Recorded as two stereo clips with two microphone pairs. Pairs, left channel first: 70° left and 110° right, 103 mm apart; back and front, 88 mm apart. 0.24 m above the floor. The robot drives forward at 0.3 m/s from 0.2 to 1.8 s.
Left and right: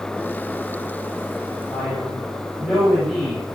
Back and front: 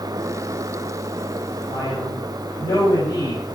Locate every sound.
1.7 s a man speaking: 165° left, 7 m